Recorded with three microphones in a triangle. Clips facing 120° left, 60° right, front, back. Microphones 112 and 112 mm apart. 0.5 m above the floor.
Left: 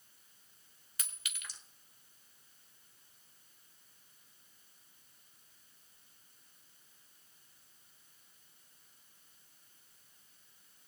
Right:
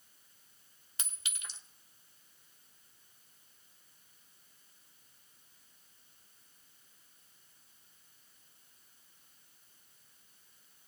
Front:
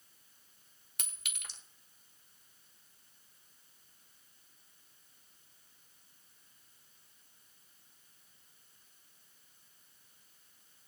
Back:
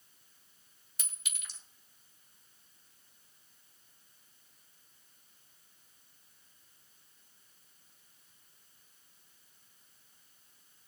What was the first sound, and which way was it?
A clink, straight ahead.